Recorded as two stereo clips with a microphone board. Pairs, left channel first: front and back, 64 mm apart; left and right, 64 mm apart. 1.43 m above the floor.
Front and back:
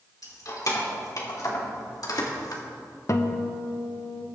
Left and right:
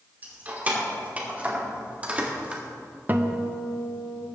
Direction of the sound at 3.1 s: 35° right.